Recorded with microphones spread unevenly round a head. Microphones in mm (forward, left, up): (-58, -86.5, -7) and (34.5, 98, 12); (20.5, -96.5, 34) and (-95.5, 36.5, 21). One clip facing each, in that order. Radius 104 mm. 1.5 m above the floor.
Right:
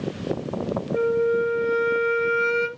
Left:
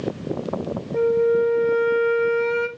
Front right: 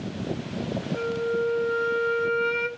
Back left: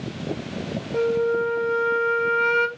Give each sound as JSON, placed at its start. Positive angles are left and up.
{"t": 0.9, "sound": "a flute", "azimuth_deg": 165, "distance_m": 1.6}